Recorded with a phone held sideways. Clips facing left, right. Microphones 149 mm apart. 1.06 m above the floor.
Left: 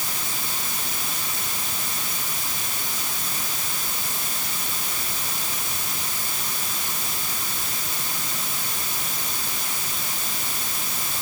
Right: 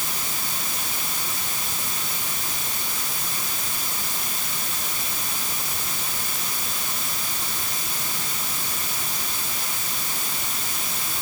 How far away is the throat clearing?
I don't hear throat clearing.